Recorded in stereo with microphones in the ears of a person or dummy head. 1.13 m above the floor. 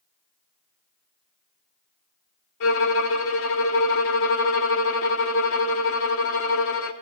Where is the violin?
65° left (ahead or behind), 1.4 m.